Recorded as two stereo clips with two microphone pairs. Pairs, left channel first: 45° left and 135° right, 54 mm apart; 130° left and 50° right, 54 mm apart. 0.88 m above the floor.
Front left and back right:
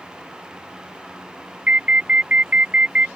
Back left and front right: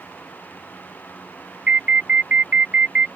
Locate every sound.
1.7 s an alarm: 95° right